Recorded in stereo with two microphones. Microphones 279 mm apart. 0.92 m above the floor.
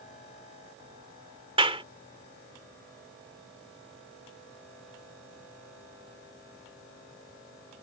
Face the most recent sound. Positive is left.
turn(degrees=-20)  # may be behind; listen again after turning